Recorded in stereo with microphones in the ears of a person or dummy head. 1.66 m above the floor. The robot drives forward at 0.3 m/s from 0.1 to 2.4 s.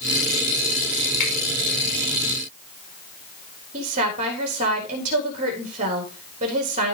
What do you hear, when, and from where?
1.2 s a finger snap: 65° left (ahead or behind), 5 m
3.7 s a woman speaking: 40° right (ahead or behind), 4 m